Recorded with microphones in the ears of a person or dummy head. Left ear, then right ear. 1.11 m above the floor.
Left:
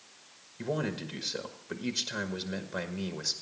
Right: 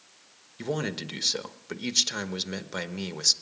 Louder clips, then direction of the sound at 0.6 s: Right 2 dB; 35° right (ahead or behind).